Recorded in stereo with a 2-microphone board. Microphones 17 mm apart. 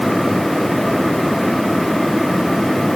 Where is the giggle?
I don't hear a giggle.